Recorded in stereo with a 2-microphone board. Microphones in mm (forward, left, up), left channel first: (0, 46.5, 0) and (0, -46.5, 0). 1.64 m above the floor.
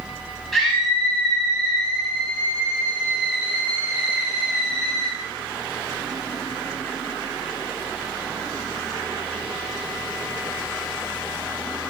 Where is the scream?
Centre (ahead or behind), 9.5 m; by 5.1 s 30° right (ahead or behind), 11.5 m.